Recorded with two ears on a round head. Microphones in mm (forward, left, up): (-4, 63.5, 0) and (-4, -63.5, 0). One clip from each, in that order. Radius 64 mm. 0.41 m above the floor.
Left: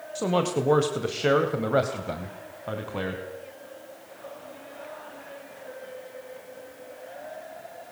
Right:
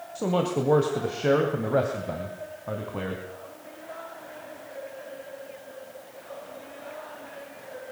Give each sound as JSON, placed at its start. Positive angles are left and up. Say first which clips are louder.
{"t": 0.1, "sound": "a man speaking", "louder": "left 1 dB", "side_deg": 35, "distance_m": 2.0}